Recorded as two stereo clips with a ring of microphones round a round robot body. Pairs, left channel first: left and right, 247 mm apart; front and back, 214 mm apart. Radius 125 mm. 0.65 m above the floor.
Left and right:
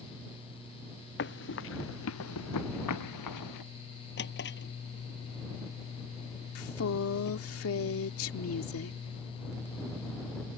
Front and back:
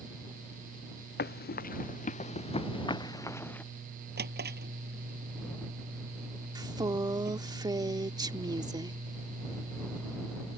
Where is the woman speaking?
110° left.